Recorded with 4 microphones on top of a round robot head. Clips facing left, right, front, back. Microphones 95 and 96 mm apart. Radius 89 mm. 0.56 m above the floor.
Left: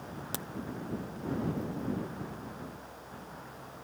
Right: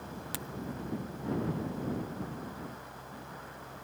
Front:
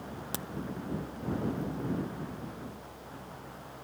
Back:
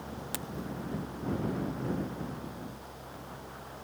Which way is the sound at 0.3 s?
45° left.